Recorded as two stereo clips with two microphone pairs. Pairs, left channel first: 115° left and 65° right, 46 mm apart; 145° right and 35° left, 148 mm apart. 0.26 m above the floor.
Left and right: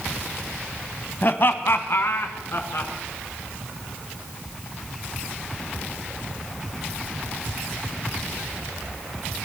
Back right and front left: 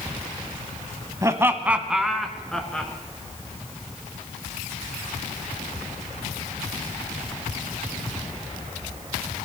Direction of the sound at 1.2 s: 95° left.